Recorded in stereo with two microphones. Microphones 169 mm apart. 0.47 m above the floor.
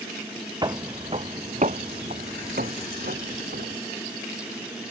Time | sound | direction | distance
0.6 | footsteps | 25° right (ahead or behind) | ?